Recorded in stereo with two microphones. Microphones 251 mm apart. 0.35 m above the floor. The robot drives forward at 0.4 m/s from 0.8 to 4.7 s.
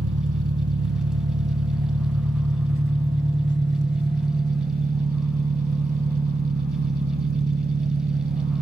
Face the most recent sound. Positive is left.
turn(degrees=-35)  # may be behind; listen again after turning